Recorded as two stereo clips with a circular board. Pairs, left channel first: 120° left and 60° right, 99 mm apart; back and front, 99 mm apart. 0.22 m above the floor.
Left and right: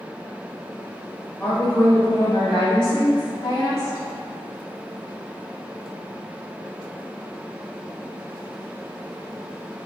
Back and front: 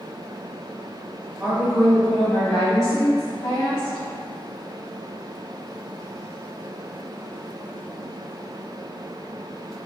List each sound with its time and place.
1.4 s a woman speaking: 65° left, 1.1 m; by 4.0 s 175° left, 1.7 m